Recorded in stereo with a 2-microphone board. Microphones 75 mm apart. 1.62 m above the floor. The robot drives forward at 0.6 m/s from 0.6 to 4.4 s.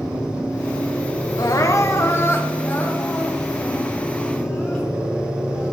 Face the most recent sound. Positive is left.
turn(degrees=15)  # may be behind; listen again after turning